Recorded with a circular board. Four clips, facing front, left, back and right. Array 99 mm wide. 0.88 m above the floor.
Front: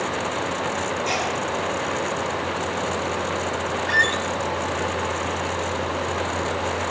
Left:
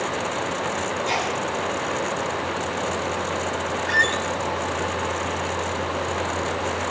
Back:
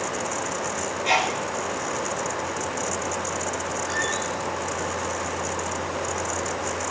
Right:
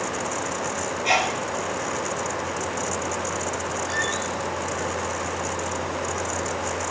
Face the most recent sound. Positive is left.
turn(degrees=30)